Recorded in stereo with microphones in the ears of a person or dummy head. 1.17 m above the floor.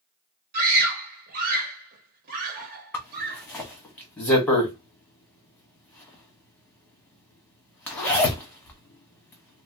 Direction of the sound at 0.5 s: 45° right (ahead or behind).